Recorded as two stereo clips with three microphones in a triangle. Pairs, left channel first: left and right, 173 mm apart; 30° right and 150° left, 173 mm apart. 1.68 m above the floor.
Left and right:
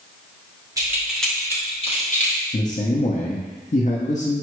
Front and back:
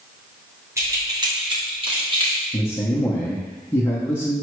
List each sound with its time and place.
0.8 s keys jangling: 145° right, 0.9 m; by 2.4 s 95° left, 1.3 m
2.5 s a man speaking: 45° left, 0.6 m